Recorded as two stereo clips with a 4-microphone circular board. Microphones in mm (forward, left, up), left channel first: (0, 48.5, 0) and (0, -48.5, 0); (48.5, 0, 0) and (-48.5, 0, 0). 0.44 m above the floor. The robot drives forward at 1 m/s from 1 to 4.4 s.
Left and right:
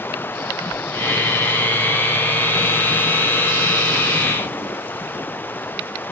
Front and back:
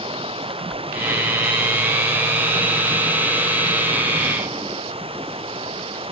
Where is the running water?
160° left.